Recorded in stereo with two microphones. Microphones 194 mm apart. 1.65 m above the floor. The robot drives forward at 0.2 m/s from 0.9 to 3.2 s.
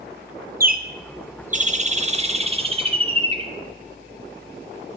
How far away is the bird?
About 0.6 m.